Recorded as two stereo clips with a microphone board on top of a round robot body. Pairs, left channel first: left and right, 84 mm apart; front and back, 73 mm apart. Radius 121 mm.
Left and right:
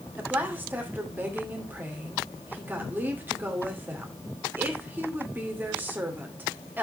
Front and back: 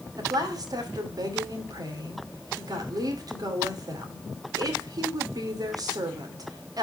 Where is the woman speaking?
155° right, 2.5 m.